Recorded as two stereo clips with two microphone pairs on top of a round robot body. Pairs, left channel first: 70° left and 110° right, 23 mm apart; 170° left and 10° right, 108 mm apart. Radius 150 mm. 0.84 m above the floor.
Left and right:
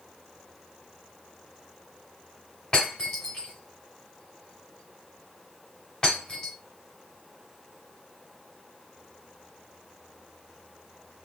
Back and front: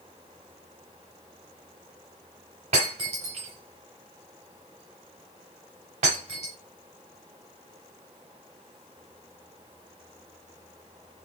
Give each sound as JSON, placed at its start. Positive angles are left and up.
{"t": 2.7, "sound": "breaking glass", "azimuth_deg": 5, "distance_m": 0.8}